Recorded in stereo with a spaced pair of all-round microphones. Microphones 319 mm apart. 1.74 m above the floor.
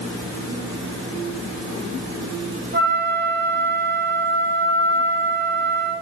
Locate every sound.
2.7 s a flute: 30° right (ahead or behind), 1.0 m